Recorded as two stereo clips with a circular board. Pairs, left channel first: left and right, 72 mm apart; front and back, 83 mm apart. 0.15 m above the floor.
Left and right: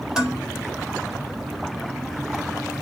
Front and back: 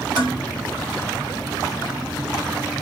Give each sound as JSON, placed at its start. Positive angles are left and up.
{"t": 0.2, "sound": "dishes clattering", "azimuth_deg": -165, "distance_m": 1.8}